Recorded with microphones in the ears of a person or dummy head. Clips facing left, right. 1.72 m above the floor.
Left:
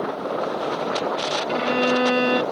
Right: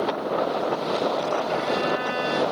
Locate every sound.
1.5 s a violin: 60° left (ahead or behind)